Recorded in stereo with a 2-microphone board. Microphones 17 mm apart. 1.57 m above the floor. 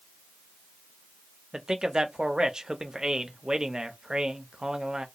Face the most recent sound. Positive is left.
turn(degrees=-55)  # may be behind; listen again after turning